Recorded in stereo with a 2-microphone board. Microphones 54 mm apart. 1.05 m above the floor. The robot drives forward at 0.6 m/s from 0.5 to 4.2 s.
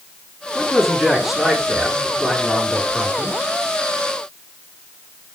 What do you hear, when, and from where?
0.6 s a man speaking: centre (ahead or behind), 7.5 m